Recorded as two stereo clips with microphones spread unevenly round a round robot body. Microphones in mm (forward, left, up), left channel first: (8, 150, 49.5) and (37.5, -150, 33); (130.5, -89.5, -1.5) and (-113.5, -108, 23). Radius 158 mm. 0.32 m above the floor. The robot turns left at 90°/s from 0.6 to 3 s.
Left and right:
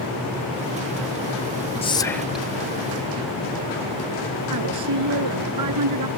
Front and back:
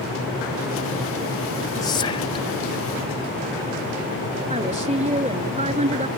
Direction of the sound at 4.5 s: 115° right.